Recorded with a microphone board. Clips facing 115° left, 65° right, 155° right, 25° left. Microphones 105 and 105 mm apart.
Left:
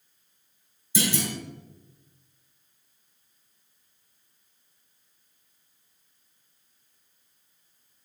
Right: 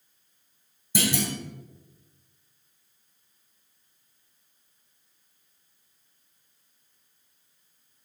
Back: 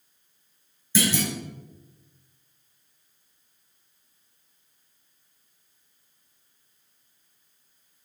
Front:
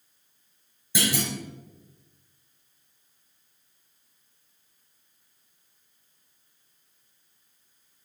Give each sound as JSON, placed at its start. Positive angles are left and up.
{"t": 0.9, "sound": "a clunk", "azimuth_deg": -50, "distance_m": 2.5}